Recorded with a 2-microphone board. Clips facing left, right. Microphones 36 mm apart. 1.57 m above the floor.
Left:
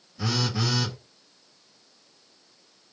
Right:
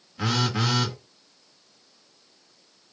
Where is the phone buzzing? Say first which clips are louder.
Right 3 dB; 50° right (ahead or behind), 1.5 m.